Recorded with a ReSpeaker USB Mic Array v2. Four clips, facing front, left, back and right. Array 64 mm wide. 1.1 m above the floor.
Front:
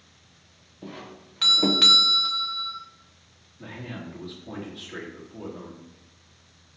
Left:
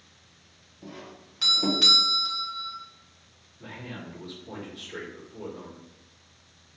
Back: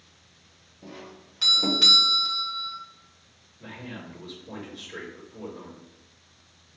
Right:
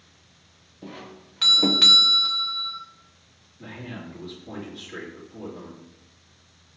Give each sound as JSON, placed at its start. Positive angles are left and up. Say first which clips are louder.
{"t": 0.8, "sound": "a doorbell", "louder": "right 3 dB, front 3 dB", "azimuth_deg": -45, "distance_m": 0.6}
{"t": 3.6, "sound": "a man speaking", "louder": "right 2 dB, front 2 dB", "azimuth_deg": -20, "distance_m": 2.5}